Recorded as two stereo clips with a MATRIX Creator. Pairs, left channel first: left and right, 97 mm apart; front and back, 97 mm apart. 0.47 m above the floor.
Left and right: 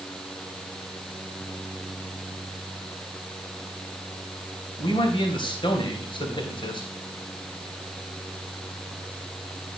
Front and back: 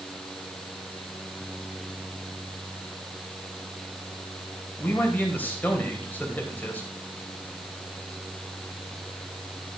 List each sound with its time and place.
4.8 s a man speaking: 70° left, 3 m